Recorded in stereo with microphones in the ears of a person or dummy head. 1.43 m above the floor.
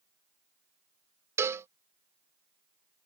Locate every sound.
1.4 s a cowbell: 15° right (ahead or behind)